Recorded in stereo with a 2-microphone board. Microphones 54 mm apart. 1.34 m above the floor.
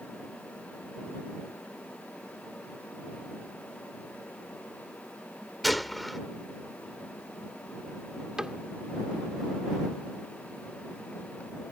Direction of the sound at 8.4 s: 15° right (ahead or behind).